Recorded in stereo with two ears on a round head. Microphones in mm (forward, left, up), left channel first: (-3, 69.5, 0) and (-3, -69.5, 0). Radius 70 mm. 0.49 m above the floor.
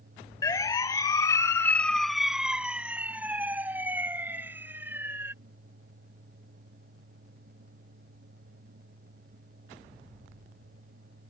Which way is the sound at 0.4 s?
25° left (ahead or behind).